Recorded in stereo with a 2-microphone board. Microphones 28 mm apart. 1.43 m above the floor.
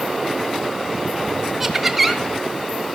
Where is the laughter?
5° right (ahead or behind), 1.0 m.